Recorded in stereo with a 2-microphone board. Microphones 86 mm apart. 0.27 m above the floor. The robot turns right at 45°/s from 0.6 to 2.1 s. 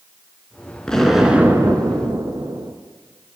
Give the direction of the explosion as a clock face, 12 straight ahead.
6 o'clock.